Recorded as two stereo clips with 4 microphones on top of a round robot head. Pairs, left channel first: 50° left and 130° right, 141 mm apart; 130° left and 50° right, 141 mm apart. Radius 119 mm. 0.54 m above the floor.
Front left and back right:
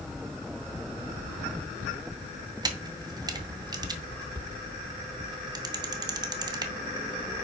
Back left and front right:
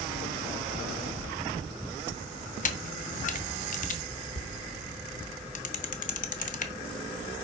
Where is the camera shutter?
165° left, 0.8 m.